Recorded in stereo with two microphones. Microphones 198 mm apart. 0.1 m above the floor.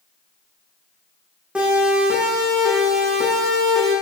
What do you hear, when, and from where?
1.6 s a siren: 5° right (ahead or behind), 8 m; by 3.9 s centre (ahead or behind), 10 m